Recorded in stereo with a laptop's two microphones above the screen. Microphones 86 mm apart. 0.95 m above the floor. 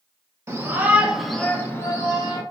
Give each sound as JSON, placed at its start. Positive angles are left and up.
{"t": 0.5, "sound": "a shout", "side_deg": -35, "distance_m": 0.9}